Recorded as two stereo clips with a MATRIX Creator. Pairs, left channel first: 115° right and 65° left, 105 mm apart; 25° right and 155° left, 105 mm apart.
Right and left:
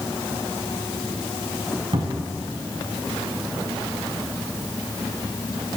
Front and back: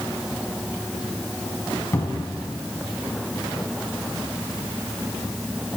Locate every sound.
1.9 s a cupboard door: 40° left, 1.7 m